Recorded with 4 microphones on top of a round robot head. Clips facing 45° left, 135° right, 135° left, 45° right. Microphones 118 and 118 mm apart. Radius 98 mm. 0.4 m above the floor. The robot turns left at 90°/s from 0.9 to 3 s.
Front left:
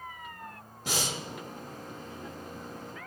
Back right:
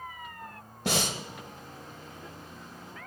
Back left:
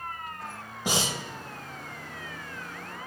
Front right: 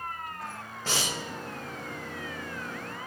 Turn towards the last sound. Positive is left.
turn(degrees=25)